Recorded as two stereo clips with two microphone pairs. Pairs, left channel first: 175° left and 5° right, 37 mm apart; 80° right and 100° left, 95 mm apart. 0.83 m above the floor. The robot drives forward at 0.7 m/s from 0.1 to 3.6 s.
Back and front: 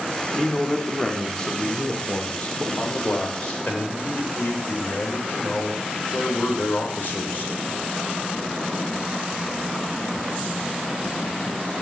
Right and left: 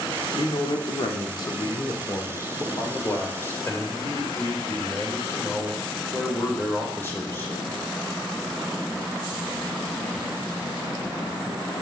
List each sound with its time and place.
0.4 s a man speaking: 100° right, 1.8 m; by 7.5 s 145° right, 3 m